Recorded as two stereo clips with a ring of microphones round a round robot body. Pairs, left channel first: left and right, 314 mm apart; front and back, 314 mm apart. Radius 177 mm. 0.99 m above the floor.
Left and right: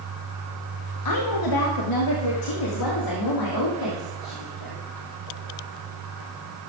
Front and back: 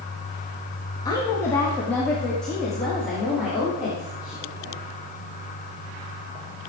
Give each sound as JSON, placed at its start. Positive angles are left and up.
{"t": 1.1, "sound": "a woman speaking", "azimuth_deg": 80, "distance_m": 1.9}